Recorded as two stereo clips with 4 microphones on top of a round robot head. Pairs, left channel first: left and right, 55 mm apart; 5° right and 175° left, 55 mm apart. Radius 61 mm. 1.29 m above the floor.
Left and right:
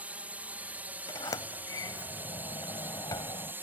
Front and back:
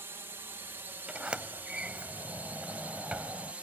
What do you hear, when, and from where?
0.0 s a drone: 145° right; by 3.6 s 125° right
1.1 s a sliding door: 105° left